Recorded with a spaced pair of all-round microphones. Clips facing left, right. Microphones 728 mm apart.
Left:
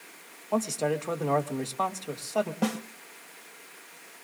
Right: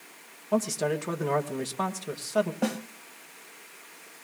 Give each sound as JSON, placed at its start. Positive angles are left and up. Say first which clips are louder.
{"t": 0.5, "sound": "a man speaking", "louder": "right 1 dB", "side_deg": -45, "distance_m": 1.3}
{"t": 2.6, "sound": "a snare drum", "louder": "even", "side_deg": 35, "distance_m": 1.6}